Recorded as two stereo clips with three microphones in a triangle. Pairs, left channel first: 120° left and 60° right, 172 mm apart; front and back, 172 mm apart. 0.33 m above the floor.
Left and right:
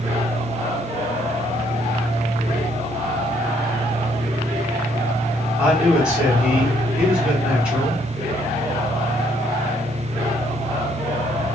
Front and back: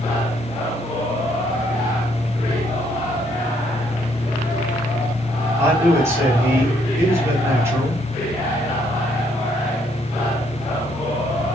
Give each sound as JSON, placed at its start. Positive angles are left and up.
{"t": 5.6, "sound": "a man speaking", "azimuth_deg": -135, "distance_m": 1.5}